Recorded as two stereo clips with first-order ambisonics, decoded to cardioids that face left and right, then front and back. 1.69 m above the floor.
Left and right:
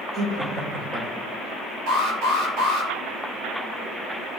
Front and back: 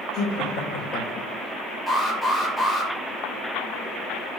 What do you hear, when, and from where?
0.1 s laughter: 25° right, 1.4 m
1.9 s an alarm: 85° right, 4 m